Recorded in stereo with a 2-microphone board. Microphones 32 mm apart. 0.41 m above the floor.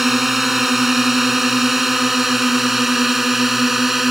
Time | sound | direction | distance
0.0 | a drone | 5° right (ahead or behind) | ?